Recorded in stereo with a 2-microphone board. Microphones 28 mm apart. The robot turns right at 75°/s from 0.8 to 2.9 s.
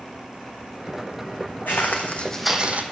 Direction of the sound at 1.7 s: 75° left (ahead or behind).